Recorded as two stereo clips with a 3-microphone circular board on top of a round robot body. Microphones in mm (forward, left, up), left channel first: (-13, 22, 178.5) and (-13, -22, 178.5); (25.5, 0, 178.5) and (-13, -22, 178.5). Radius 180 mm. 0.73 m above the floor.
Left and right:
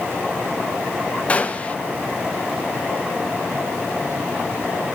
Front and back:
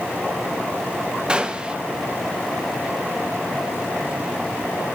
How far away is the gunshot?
About 1.3 m.